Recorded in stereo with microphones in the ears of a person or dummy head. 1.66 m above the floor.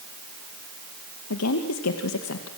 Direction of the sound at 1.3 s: 90° left.